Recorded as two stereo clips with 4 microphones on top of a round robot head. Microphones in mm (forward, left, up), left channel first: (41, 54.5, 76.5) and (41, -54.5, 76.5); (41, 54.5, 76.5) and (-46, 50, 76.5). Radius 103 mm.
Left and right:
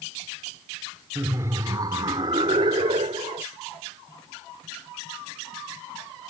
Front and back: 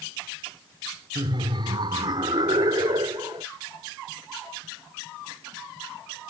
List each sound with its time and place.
1.1 s laughter: 155° right; by 3.5 s 125° right